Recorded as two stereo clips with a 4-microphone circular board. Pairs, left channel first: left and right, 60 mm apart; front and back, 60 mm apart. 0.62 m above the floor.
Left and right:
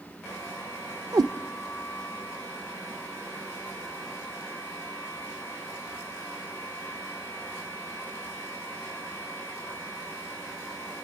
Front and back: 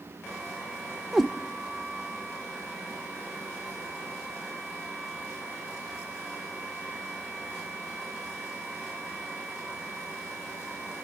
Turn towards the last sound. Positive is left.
turn(degrees=-90)